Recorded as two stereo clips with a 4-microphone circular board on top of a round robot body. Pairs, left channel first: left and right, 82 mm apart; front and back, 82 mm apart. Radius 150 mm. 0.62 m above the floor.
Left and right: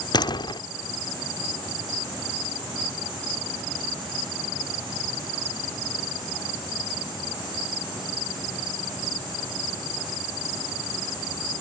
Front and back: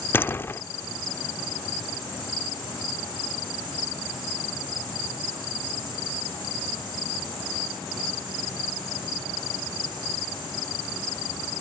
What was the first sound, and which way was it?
A door slam, 65° left.